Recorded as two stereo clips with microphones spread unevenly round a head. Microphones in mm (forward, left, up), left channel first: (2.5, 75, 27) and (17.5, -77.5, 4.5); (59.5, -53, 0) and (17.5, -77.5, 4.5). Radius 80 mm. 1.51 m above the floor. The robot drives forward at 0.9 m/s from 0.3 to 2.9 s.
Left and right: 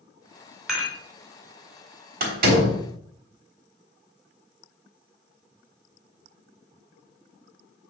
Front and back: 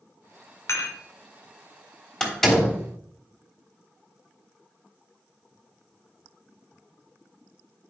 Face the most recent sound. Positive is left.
turn(degrees=-60)